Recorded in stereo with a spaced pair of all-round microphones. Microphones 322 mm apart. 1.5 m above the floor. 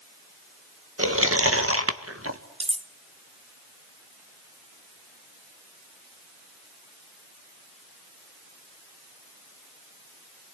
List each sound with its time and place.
1.0 s chewing: 45° right (ahead or behind), 1.7 m
2.6 s cutlery clinking: 20° right (ahead or behind), 0.7 m